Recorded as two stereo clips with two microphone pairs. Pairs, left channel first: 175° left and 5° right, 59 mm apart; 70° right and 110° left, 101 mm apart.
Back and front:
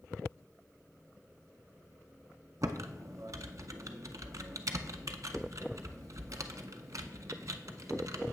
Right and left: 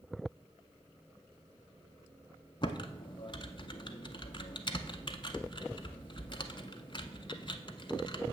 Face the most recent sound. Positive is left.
turn(degrees=-30)